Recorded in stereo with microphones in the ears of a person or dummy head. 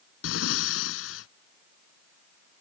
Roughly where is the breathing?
Left.